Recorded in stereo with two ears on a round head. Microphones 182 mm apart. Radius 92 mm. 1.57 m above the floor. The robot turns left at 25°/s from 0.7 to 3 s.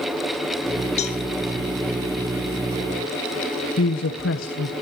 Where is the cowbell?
35° left (ahead or behind), 1.4 m; by 1.2 s 30° left (ahead or behind), 1.4 m.